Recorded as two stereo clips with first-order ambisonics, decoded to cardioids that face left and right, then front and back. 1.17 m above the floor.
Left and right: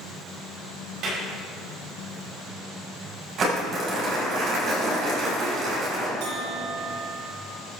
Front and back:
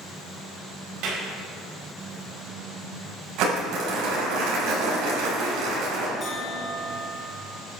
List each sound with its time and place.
1.0 s a clap: 140° right, 5.5 m
3.4 s crumpling: 150° right, 6.5 m
6.2 s a bell: 75° right, 6.5 m